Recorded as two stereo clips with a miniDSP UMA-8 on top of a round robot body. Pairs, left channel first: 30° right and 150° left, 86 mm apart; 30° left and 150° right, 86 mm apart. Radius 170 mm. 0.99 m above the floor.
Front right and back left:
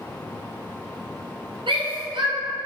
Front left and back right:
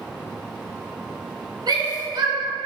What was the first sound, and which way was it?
A shout, 175° left.